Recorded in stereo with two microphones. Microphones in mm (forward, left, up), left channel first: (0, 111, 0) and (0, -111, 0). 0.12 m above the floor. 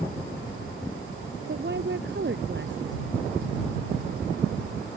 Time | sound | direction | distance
1.5 | a woman speaking | 55° right (ahead or behind) | ?